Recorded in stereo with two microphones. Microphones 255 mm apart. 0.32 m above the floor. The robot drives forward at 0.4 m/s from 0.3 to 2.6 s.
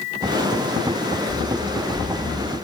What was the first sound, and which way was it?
Running footsteps, 10° left (ahead or behind).